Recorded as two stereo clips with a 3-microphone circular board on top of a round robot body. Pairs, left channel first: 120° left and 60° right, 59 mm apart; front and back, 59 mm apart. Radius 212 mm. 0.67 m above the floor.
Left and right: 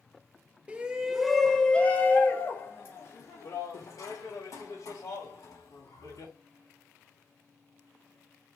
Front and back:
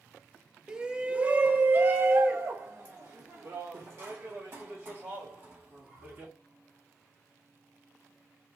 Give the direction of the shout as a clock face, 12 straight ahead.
4 o'clock.